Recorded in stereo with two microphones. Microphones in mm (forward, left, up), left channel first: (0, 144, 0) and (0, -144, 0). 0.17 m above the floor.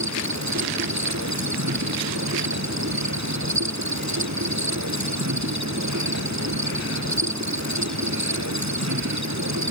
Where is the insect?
75° right (ahead or behind).